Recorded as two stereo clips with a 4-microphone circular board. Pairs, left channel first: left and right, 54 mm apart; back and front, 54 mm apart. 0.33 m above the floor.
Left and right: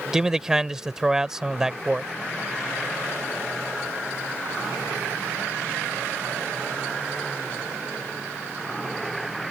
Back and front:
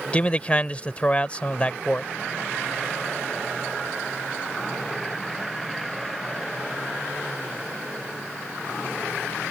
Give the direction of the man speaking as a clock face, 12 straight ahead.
5 o'clock.